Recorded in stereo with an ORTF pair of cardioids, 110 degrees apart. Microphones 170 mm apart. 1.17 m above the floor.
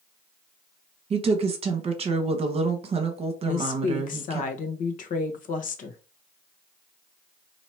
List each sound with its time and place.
1.1 s a woman speaking: 35° right, 1.2 m
3.5 s a woman speaking: 55° left, 1.1 m